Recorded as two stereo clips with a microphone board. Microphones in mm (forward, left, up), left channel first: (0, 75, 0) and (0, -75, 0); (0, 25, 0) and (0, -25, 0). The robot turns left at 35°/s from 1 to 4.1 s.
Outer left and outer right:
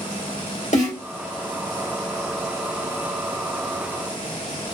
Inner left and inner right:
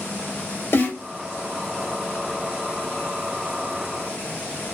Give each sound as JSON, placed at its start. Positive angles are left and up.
{"t": 0.7, "sound": "a snare drum", "side_deg": 60, "distance_m": 2.5}